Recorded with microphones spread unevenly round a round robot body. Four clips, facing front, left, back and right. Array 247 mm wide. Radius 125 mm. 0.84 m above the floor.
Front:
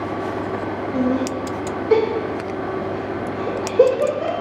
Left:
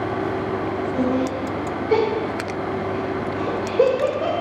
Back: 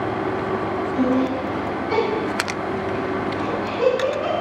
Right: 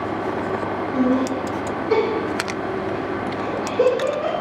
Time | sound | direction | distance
0.9 | laughter | 40° right | 2.5 m